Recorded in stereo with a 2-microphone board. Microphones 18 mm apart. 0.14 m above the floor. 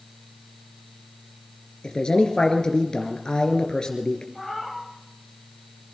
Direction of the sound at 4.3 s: 5° left (ahead or behind).